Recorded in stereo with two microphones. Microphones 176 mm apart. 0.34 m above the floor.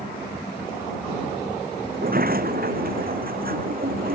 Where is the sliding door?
60° right (ahead or behind).